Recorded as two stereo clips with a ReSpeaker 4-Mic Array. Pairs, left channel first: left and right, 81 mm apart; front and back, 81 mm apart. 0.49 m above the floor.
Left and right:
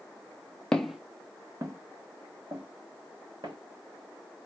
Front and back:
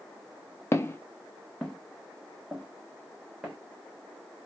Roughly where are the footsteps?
Ahead.